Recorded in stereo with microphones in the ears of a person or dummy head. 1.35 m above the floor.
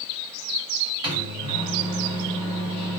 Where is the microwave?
20° right (ahead or behind), 1.2 m.